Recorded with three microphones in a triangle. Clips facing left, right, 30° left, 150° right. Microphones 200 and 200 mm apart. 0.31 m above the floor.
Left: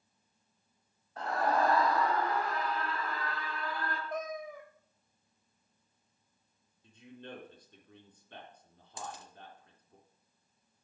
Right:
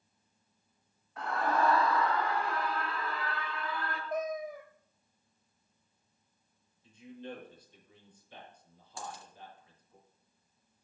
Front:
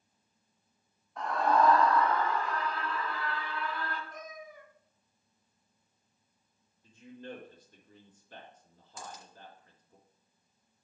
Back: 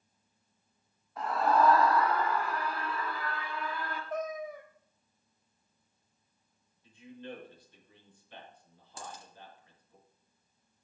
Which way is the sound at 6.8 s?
70° left.